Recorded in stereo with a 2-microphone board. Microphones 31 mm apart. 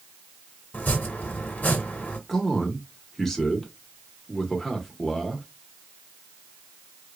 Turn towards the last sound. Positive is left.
turn(degrees=10)  # may be behind; listen again after turning